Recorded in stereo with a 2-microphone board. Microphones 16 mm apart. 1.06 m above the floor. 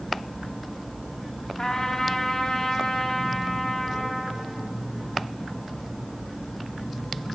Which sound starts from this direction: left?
A trumpet, at 1.6 s.